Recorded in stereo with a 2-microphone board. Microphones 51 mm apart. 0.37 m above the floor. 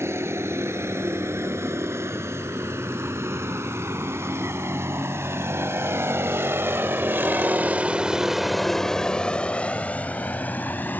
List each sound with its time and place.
0.0 s a vehicle: 60° right (ahead or behind); by 11.0 s 40° left (ahead or behind)